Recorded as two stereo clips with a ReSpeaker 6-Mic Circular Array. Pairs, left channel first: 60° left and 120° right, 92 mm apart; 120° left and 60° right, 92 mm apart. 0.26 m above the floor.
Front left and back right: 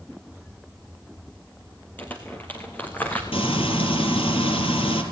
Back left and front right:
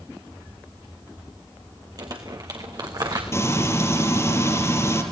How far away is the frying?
About 4.5 m.